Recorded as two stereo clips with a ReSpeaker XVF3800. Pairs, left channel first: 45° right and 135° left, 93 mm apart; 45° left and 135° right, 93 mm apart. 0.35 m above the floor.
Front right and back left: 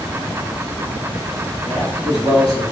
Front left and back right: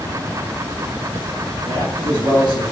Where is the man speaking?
140° right, 1.5 m.